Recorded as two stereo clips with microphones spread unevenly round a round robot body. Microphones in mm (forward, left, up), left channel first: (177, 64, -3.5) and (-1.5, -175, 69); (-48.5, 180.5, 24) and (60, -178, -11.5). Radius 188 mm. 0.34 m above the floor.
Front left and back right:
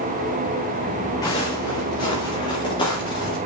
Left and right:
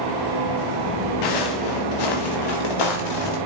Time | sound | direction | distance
1.2 | footsteps | 135° left | 2.5 m